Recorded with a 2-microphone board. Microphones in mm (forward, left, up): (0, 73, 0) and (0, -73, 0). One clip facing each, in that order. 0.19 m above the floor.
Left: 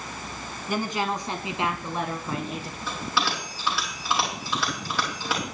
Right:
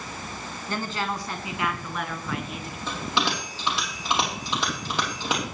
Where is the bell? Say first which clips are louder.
Right 1 dB; 20° right (ahead or behind), 5.5 m.